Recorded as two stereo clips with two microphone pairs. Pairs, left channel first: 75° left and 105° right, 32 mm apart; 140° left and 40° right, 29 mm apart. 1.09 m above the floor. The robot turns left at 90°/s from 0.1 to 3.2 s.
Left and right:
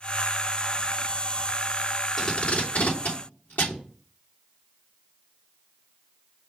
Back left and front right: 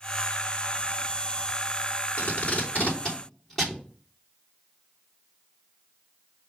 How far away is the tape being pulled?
About 3 m.